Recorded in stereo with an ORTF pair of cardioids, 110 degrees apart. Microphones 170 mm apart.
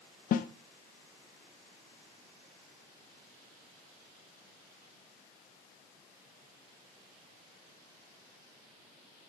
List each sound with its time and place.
0.3 s a snare drum: 55° left, 0.8 m